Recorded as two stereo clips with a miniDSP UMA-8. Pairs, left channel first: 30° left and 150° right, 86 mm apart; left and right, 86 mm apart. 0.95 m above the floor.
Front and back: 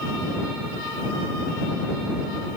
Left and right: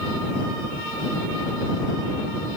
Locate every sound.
Only background noise.